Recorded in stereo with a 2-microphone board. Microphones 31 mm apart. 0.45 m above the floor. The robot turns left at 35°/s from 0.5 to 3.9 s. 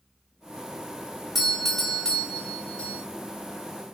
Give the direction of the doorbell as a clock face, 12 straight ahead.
6 o'clock.